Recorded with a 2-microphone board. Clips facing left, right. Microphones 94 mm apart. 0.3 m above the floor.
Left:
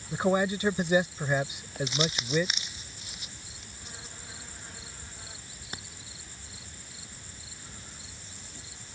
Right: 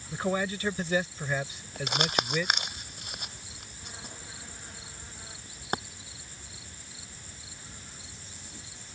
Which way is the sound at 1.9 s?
60° right (ahead or behind).